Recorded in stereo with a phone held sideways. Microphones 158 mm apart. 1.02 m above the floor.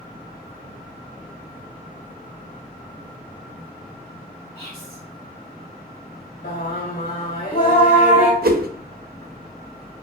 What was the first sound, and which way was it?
Whispering, 35° right (ahead or behind).